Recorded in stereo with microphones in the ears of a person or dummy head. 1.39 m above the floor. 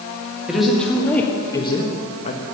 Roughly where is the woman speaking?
Centre.